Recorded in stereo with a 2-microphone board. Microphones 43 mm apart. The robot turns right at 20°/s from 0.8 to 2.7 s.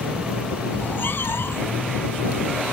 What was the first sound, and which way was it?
A cat meowing, 55° left (ahead or behind).